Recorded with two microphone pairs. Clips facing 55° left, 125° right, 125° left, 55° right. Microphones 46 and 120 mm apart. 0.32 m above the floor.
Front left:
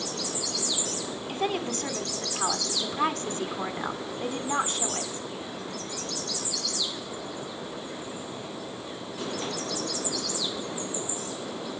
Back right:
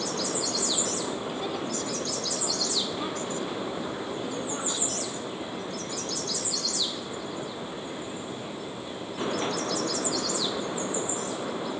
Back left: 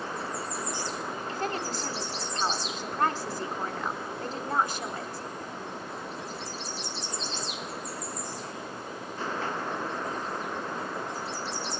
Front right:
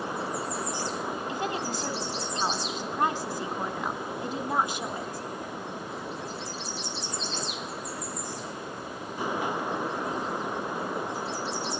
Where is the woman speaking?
20° left, 3 m.